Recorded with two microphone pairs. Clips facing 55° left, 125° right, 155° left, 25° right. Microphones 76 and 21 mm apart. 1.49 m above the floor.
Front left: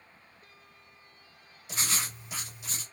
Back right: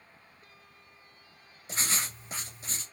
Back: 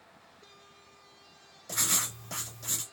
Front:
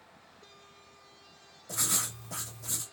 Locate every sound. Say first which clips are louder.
1.7 s writing: even, back 2 dB; 175° right, 2 m